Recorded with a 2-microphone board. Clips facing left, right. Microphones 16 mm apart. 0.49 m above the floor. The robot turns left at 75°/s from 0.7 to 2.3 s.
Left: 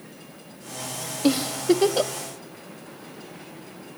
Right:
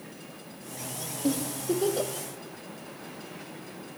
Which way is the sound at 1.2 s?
75° left (ahead or behind).